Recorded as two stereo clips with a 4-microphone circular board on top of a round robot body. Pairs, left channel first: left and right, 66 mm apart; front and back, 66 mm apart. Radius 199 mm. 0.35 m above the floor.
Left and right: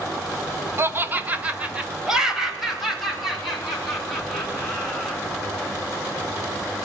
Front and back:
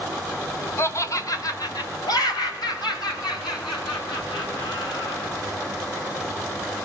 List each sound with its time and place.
0.8 s laughter: 45° right, 1.4 m; by 5.2 s 5° left, 5.5 m